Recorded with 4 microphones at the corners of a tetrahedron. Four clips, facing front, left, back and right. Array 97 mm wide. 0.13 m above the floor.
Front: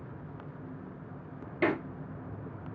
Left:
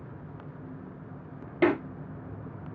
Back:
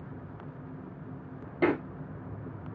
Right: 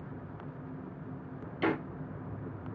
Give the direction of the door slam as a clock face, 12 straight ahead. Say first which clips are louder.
Left 7 dB, back 2 dB; 9 o'clock.